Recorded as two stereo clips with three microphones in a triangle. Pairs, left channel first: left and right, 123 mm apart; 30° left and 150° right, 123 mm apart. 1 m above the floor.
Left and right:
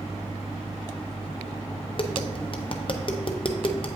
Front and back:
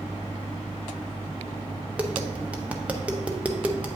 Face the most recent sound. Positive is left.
turn(degrees=135)